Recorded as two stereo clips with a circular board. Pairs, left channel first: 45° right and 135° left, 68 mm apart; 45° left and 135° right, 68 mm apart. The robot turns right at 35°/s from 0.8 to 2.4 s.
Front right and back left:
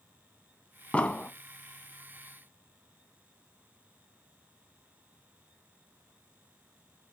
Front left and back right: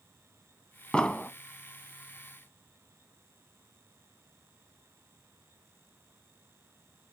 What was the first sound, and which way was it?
An explosion, 10° right.